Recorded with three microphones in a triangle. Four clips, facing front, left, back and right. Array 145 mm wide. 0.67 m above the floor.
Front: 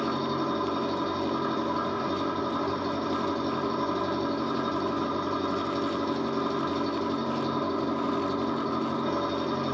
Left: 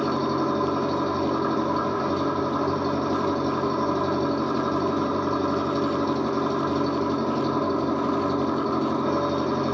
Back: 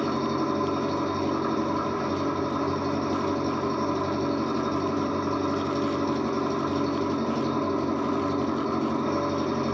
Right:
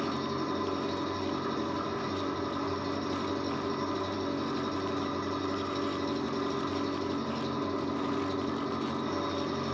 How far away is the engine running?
About 1.1 m.